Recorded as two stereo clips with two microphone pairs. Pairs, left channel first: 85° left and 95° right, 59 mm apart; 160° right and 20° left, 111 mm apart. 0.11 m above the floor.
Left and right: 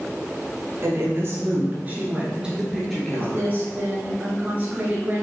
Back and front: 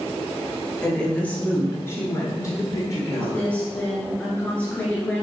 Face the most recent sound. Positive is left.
turn(degrees=-90)